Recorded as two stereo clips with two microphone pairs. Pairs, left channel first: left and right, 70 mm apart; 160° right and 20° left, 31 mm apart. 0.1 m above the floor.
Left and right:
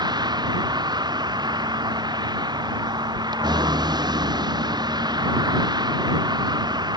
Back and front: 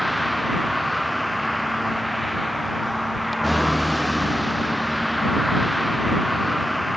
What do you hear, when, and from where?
0.0 s a vehicle: 70° right